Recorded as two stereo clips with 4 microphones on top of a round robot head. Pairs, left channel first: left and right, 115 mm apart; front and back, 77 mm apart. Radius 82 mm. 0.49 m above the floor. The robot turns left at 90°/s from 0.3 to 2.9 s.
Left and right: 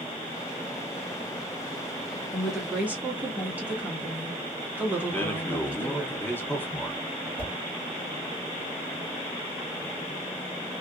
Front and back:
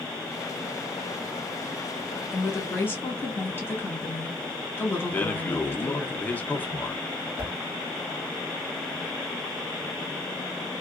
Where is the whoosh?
75° right, 1.3 m.